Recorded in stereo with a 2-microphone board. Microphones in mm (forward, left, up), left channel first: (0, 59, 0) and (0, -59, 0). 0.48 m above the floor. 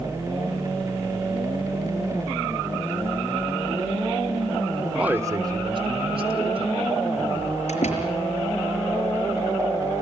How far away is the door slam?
About 5.5 m.